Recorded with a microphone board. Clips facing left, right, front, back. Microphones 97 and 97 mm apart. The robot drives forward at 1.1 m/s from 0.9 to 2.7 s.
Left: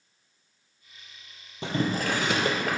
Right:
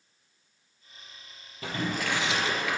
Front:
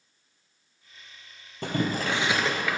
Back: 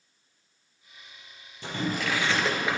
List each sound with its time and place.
1.6 s boiling: 30° left, 1.1 m; by 2.8 s 120° left, 0.7 m